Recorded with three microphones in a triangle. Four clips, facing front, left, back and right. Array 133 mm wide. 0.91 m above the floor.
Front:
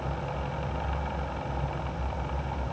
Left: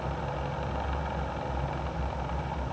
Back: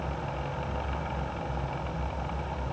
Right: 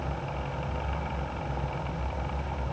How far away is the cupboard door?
I don't hear a cupboard door.